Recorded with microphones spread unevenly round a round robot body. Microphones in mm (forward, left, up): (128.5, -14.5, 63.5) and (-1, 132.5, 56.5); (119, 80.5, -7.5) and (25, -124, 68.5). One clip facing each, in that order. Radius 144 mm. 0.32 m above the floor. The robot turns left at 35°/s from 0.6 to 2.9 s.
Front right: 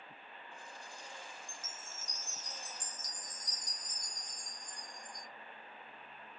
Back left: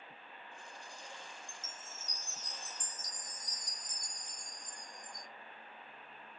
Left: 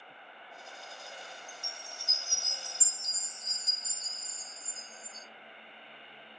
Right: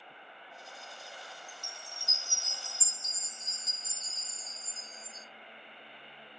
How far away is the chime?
About 2 m.